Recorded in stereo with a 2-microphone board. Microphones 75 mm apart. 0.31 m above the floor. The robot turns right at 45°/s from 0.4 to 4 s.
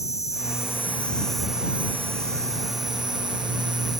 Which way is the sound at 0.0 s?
135° left.